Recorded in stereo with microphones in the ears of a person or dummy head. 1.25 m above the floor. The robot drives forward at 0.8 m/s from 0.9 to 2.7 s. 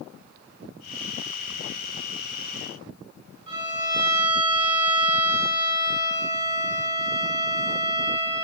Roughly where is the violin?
Right.